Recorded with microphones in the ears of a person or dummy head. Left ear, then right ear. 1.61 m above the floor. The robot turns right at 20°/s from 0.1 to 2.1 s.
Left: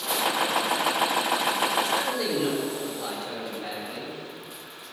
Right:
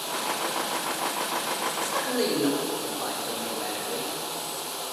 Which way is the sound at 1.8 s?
60° right (ahead or behind).